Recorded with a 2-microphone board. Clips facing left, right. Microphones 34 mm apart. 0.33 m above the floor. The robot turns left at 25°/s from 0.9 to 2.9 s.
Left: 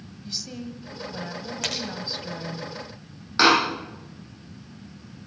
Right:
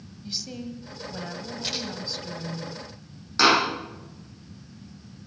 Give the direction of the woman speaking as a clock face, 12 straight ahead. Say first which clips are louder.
Even; 6 o'clock.